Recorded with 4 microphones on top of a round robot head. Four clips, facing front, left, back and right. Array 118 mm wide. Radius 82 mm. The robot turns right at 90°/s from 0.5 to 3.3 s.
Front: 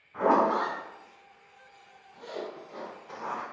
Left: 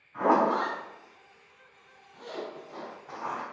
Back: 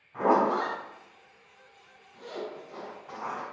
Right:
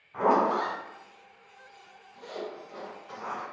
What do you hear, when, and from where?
0.1 s a zipper: 90° right, 1.1 m; by 3.4 s 165° left, 1.1 m